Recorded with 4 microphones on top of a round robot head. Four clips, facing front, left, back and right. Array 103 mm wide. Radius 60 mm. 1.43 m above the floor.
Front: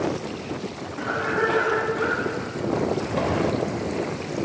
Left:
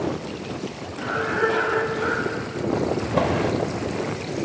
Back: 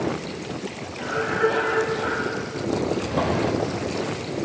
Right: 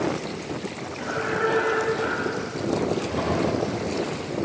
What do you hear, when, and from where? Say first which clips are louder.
1.0 s a cough: left 2 dB, back 1 dB; 20° left, 4 m
3.0 s a drawer: left 2 dB, even; 95° left, 3.5 m